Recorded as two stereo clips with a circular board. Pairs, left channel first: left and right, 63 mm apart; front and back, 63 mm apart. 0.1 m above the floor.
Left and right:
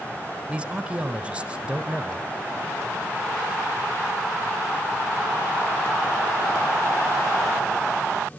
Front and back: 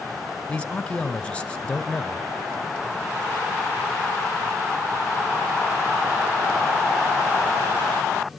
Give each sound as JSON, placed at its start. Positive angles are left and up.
{"t": 0.5, "sound": "a man speaking", "azimuth_deg": -45, "distance_m": 1.2}